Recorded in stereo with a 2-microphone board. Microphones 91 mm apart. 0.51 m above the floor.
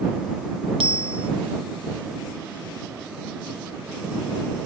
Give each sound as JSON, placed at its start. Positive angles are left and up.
{"t": 0.8, "sound": "a bicycle bell", "side_deg": -75}